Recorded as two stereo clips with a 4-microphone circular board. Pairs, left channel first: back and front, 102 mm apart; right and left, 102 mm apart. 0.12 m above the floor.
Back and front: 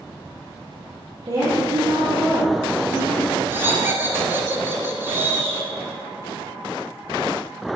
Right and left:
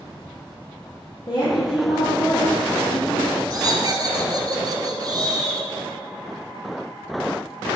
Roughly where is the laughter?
Ahead left.